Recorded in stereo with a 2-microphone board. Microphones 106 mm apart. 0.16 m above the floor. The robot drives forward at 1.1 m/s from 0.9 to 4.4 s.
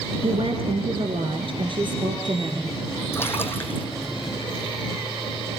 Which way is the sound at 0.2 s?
60° right (ahead or behind).